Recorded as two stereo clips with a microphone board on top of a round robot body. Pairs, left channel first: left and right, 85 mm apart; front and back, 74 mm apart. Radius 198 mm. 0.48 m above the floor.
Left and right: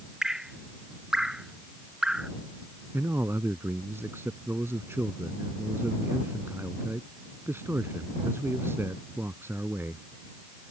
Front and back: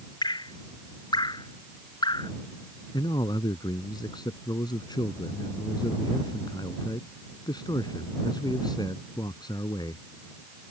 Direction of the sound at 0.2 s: 5° right.